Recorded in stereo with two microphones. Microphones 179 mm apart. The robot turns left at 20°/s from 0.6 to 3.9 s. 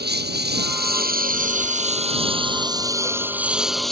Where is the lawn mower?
115° right; by 3.9 s straight behind.